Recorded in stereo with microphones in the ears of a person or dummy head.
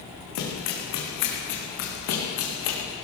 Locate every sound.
0.3 s running footsteps: 70° left (ahead or behind), 4 m; by 2.8 s 75° left (ahead or behind), 4 m